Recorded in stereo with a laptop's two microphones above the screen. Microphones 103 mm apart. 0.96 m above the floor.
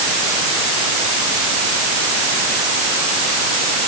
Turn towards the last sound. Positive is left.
No sound to turn to.